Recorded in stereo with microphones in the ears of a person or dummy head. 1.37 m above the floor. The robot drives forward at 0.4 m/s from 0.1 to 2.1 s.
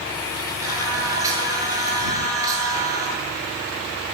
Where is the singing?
20° right (ahead or behind), 7.5 m.